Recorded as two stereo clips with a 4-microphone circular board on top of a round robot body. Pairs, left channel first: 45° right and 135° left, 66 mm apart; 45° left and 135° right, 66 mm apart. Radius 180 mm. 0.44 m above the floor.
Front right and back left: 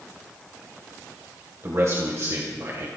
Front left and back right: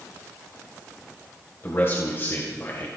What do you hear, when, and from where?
1.6 s a man speaking: 95° left, 2.5 m